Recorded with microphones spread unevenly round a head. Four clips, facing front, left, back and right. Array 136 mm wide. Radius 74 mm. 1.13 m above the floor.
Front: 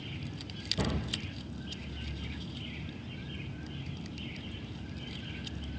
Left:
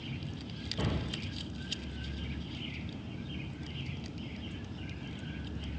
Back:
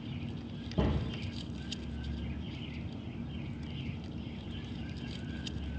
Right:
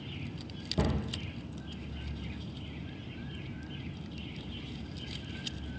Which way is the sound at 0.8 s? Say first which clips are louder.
Right 4 dB, back 1 dB; 125° right.